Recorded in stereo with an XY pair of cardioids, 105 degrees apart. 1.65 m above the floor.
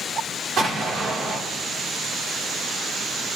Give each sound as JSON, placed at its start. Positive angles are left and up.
{"t": 0.6, "sound": "an explosion", "azimuth_deg": -60, "distance_m": 2.0}